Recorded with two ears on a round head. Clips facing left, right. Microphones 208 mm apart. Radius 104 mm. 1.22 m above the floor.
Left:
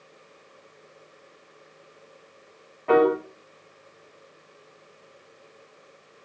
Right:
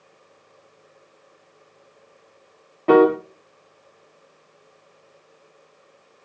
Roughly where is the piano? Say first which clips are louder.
Right 5 dB; right.